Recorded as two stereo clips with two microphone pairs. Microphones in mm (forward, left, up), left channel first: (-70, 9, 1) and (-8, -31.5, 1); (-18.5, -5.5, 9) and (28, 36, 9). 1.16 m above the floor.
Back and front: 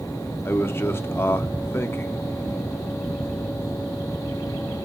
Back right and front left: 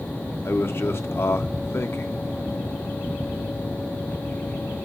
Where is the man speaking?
170° right, 0.8 m.